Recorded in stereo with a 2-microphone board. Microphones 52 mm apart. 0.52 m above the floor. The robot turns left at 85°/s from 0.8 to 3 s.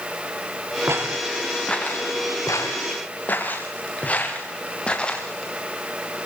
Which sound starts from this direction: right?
Footsteps, at 0.9 s.